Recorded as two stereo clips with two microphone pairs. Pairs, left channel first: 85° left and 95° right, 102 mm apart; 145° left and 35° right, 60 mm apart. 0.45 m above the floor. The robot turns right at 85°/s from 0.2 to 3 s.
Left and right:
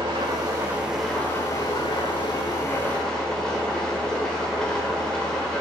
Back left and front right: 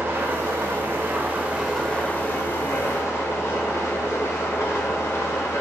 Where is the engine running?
75° right, 1.1 m; by 5.6 s 165° left, 1.1 m.